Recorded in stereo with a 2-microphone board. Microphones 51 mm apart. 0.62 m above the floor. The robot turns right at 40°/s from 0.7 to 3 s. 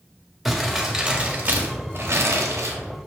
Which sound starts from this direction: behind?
Crumpling, at 0.5 s.